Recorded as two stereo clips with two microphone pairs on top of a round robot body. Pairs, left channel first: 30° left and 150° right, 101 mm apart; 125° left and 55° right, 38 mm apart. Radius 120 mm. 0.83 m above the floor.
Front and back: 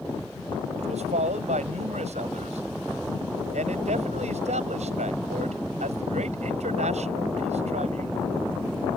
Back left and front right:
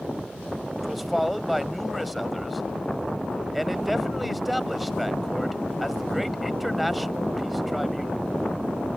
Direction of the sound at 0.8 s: 140° right.